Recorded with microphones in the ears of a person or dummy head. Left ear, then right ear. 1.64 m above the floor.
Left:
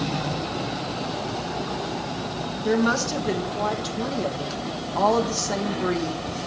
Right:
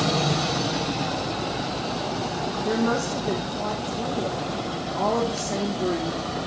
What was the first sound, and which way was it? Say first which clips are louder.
A woman speaking: left 3 dB; 50° left (ahead or behind).